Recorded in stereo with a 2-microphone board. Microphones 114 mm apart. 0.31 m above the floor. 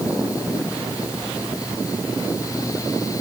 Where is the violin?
No violin in this recording.